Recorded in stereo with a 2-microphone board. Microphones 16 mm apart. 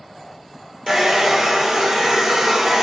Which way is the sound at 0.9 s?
40° right (ahead or behind).